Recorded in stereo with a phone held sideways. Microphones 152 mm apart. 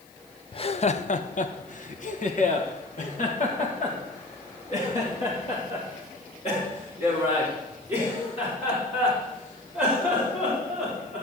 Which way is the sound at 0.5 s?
35° left (ahead or behind).